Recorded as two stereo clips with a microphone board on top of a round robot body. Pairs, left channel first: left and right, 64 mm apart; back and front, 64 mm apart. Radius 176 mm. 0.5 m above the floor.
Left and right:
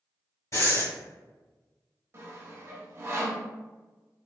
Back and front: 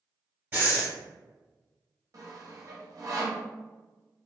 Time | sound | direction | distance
0.5 | breathing | 60° left | 1.9 m
2.1 | sawing | 40° right | 0.8 m